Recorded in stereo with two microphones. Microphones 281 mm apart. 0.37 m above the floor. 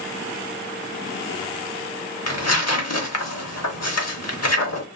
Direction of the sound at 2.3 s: 60° left (ahead or behind).